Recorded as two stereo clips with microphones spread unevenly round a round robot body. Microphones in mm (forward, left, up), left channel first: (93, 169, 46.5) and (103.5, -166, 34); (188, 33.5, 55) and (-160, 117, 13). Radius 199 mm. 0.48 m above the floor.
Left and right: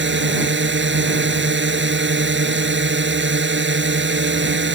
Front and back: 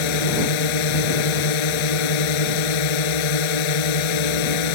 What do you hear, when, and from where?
0.0 s a drone: 30° right